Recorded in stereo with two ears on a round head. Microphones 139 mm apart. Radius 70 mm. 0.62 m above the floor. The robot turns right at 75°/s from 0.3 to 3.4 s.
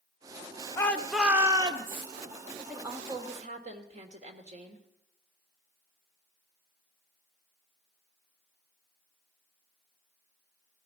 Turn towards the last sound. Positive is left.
turn(degrees=-125)